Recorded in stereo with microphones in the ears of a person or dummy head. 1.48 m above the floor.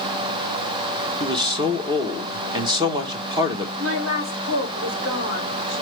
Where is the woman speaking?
75° right (ahead or behind), 2.5 m.